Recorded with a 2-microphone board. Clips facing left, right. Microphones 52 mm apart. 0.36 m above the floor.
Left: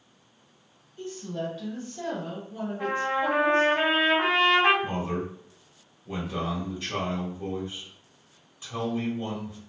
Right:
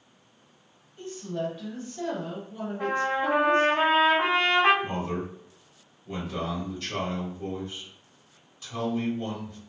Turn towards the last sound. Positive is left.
turn(degrees=20)  # may be behind; listen again after turning